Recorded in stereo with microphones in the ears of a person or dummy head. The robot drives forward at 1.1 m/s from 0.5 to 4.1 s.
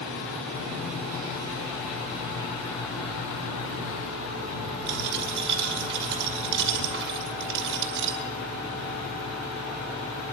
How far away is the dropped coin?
About 5.5 m.